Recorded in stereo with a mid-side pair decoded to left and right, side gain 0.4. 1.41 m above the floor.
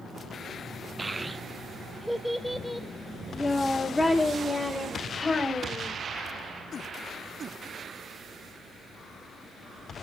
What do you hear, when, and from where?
1.0 s a child speaking: 20° right, 0.9 m; by 6.0 s 20° left, 4 m